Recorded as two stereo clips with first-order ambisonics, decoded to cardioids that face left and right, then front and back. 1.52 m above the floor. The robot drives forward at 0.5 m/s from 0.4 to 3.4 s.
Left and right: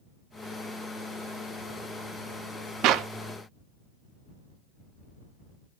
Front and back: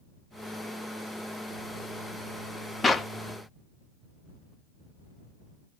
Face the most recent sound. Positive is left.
turn(degrees=-105)